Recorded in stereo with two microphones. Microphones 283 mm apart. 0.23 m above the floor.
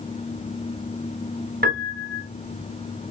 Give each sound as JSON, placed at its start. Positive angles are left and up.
{"t": 1.6, "sound": "a piano", "side_deg": -35, "distance_m": 1.5}